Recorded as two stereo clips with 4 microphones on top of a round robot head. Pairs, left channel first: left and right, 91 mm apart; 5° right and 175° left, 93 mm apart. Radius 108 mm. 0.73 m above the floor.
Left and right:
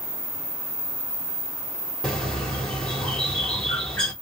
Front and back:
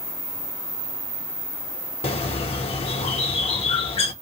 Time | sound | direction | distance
2.0 | a bird | 5° left | 1.1 m